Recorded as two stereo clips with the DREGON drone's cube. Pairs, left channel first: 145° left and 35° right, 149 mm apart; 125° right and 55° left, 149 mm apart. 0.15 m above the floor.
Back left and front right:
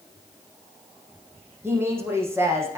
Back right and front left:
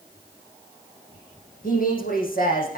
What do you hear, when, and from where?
1.6 s a woman speaking: 105° right, 5 m